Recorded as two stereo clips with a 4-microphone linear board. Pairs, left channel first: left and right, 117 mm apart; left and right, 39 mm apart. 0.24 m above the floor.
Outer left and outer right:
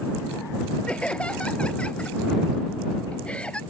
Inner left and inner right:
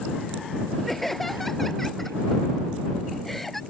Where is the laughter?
10° left (ahead or behind).